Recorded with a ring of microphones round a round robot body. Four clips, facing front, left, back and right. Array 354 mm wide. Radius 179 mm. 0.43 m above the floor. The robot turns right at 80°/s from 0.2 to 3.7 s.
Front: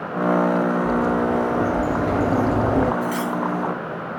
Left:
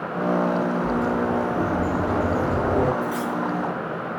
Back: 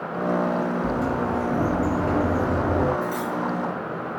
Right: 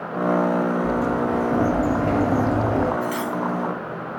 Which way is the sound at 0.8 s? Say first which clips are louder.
Right 1 dB, front 4 dB; 165° right.